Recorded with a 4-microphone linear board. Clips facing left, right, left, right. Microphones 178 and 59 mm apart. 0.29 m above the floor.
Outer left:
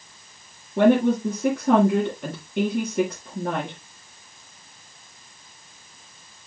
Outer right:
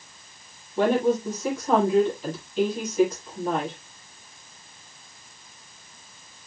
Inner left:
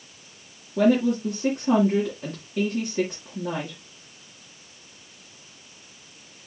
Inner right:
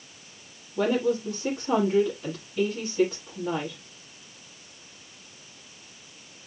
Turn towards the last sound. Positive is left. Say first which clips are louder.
# outer left 4 dB, inner left 4 dB
turn(degrees=65)  # may be behind; listen again after turning